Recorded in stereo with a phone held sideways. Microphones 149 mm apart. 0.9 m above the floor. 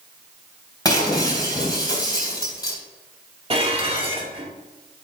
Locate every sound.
0.8 s breaking glass: 25° left (ahead or behind), 3.5 m
3.5 s dishes clattering: 40° right (ahead or behind), 1.6 m